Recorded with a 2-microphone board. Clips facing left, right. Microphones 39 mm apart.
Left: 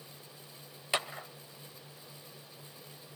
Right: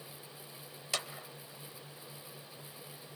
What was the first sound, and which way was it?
A clap, 25° left (ahead or behind).